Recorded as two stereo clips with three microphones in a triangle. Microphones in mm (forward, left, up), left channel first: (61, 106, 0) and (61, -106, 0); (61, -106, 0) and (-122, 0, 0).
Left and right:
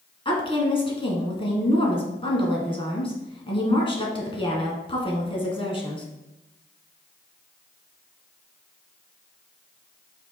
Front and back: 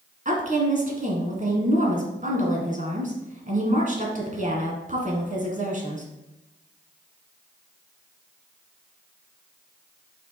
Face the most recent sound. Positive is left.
turn(degrees=135)